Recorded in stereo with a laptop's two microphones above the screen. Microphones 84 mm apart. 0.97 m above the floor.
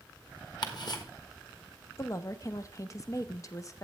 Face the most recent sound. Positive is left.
turn(degrees=40)  # may be behind; listen again after turning